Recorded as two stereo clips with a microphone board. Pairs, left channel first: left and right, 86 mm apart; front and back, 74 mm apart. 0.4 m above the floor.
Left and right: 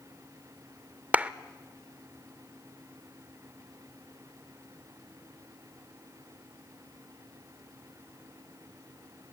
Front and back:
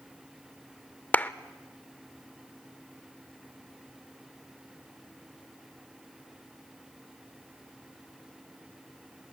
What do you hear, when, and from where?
1.1 s a clap: 40° right, 0.6 m